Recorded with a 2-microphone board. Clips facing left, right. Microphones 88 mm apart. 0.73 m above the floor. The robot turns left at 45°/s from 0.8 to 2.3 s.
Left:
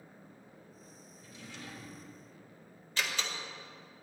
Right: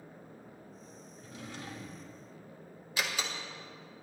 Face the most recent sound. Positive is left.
turn(degrees=-10)  # may be behind; listen again after turning